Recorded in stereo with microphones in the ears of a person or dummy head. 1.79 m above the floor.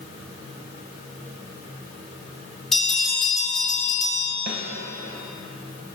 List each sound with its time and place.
2.7 s a bell: centre (ahead or behind), 4 m
4.5 s a snare drum: 55° right (ahead or behind), 2 m